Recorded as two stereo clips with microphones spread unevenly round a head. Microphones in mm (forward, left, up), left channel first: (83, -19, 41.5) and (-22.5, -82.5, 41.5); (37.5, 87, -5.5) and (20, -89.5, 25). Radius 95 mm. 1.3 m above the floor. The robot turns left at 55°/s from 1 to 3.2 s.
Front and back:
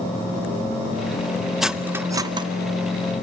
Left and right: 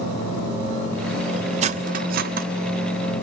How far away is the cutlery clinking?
About 0.6 m.